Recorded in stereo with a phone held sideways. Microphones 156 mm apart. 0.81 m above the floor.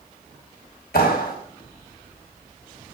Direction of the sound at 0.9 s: 80° left.